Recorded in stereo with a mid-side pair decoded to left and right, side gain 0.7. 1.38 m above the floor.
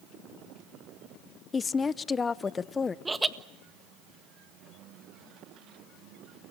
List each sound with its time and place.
1.5 s a woman speaking: 25° left, 0.8 m
3.0 s laughter: 10° right, 1.6 m